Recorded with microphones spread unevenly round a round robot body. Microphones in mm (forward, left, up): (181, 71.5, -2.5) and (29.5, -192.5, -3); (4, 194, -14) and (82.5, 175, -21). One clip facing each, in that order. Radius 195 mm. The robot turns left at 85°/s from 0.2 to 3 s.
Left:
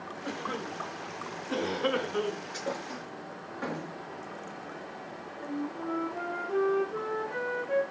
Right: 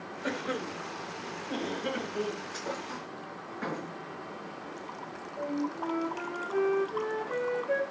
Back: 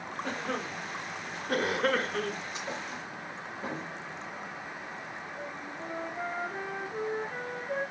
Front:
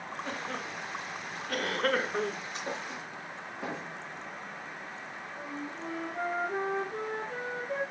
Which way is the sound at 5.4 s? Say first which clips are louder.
Right 2 dB, front 3 dB; 60° right.